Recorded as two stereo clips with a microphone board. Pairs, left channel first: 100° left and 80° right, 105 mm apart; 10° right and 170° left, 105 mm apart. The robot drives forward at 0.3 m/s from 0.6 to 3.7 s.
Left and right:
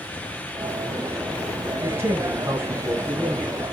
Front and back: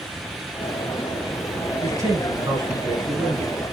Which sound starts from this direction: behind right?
A man speaking, at 1.8 s.